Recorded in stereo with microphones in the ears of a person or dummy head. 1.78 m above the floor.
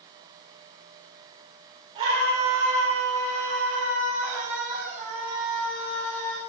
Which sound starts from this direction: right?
A scream, at 1.9 s.